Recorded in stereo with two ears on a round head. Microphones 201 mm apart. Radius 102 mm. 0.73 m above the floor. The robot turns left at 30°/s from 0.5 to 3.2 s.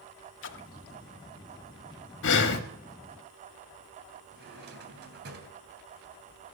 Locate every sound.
0.4 s a splash: 60° left (ahead or behind), 1.2 m; by 1.0 s 70° left (ahead or behind), 1.2 m
2.2 s breathing: 55° left (ahead or behind), 1.6 m; by 2.6 s 50° left (ahead or behind), 1.6 m
4.3 s a drawer: 50° right (ahead or behind), 3 m